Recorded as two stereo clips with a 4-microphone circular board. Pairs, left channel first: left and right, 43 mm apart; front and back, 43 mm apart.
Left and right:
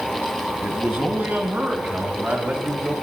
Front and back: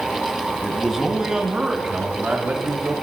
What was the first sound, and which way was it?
A man speaking, 85° right.